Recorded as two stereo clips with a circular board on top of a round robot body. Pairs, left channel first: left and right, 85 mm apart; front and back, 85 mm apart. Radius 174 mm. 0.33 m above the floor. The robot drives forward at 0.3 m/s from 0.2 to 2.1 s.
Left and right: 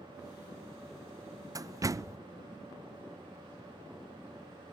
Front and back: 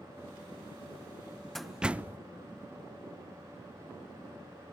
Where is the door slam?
85° right, 0.6 m; by 2.2 s 120° right, 0.6 m.